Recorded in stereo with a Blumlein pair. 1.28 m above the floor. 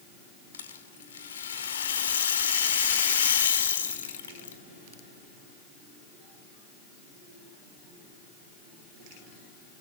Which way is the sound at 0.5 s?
65° left.